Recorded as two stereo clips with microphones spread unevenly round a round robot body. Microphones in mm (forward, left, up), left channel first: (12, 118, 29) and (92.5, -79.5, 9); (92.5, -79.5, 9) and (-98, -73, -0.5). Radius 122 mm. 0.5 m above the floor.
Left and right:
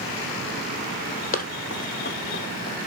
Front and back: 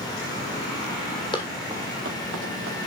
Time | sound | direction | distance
1.3 | running footsteps | 65° left | 1.0 m